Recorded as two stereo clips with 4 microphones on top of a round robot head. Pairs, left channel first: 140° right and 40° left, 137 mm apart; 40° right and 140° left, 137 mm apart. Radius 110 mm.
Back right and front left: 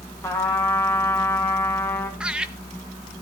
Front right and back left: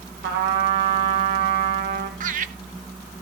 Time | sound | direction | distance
0.2 | a trumpet | 145° left | 2.5 m
2.2 | laughter | 120° left | 1.5 m